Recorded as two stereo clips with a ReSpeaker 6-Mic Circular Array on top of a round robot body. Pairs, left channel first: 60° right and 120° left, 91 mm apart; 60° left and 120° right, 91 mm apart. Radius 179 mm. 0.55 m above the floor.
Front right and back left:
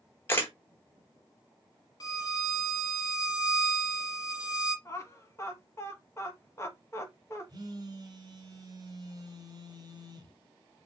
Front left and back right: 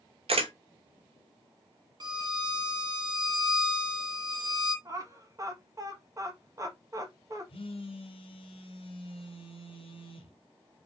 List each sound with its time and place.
0.3 s a camera shutter: 130° right, 1.0 m
2.0 s a violin: 100° right, 1.1 m
4.8 s laughter: 100° right, 1.3 m
7.5 s a phone buzzing: 70° left, 0.8 m